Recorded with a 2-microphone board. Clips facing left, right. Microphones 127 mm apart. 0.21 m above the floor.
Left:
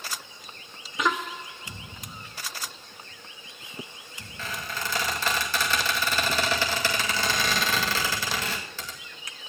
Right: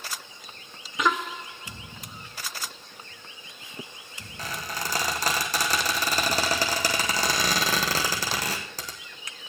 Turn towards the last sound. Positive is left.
turn(degrees=-40)  # may be behind; listen again after turning